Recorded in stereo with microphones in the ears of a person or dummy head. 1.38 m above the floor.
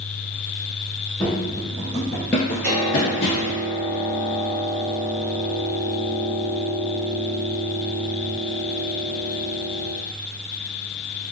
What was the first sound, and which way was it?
Running footsteps, 10° right (ahead or behind).